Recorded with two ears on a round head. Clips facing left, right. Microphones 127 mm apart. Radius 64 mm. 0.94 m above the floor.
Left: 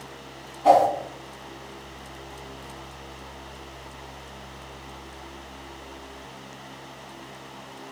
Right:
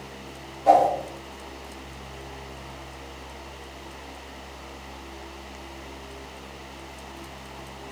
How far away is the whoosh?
About 3.5 m.